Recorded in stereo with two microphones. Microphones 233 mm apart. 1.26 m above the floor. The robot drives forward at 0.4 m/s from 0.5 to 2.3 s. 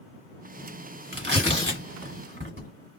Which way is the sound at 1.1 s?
50° right (ahead or behind).